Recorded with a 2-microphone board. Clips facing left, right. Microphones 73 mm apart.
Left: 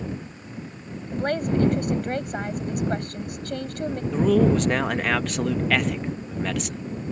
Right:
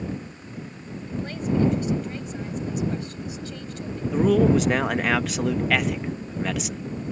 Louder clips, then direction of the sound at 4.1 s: Right 1 dB; 5° right (ahead or behind).